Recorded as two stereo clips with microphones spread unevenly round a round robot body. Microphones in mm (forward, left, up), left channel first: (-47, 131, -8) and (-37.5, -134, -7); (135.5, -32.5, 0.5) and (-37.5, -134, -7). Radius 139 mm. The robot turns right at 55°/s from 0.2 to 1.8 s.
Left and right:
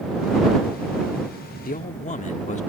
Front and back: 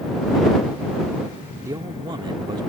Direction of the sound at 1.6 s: 140° left.